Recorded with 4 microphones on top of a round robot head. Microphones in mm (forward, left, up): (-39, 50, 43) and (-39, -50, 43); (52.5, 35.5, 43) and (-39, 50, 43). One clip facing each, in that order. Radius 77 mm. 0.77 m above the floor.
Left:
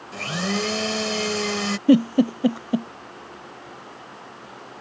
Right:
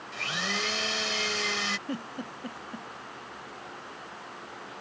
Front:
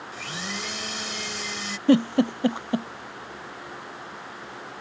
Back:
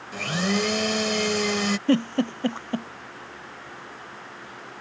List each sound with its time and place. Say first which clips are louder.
0.1 s a blender: left 8 dB, back 11 dB; 140° left
1.9 s a giggle: left 20 dB, front 5 dB; 70° left